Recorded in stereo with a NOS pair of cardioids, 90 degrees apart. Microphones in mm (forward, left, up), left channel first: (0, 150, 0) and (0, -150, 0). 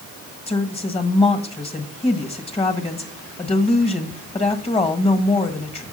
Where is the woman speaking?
20° left, 1.5 m.